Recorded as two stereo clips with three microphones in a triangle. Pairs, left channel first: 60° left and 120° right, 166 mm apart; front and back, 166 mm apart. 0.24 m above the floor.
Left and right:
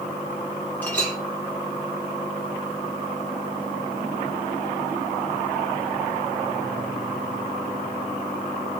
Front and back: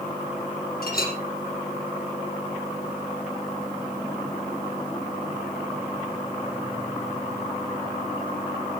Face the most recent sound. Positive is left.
turn(degrees=-20)